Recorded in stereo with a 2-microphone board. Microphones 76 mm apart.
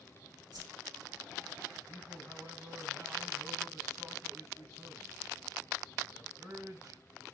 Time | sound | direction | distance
0.5 | a whoosh | 65° right (ahead or behind) | 3.5 m
1.9 | a man speaking | 60° right (ahead or behind) | 5 m